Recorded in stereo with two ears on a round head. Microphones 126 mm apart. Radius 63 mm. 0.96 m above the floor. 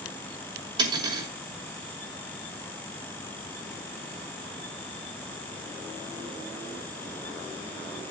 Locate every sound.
0.8 s cutlery clinking: 30° right (ahead or behind), 5.5 m